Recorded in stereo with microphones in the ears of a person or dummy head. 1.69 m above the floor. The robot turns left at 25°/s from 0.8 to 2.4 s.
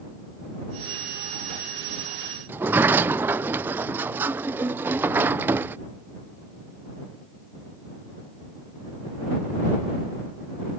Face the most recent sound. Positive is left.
turn(degrees=-10)  # may be behind; listen again after turning